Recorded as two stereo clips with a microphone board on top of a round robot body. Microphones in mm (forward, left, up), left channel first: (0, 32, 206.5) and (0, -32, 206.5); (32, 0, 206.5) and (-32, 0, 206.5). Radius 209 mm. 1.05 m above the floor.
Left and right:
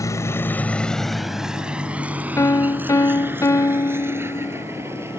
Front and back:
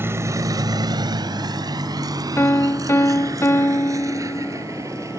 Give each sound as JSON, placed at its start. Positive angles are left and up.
{"t": 0.0, "sound": "a vehicle", "azimuth_deg": 125}
{"t": 2.4, "sound": "a piano", "azimuth_deg": 50}